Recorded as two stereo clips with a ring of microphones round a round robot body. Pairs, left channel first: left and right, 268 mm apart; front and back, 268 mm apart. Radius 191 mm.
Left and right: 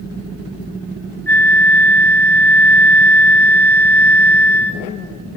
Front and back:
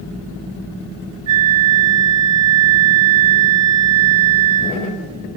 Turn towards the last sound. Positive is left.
turn(degrees=175)